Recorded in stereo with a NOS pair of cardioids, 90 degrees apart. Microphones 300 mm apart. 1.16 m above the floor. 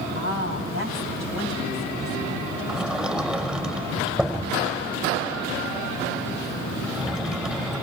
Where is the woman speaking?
45° left, 9 m; by 3.2 s 55° left, 8.5 m.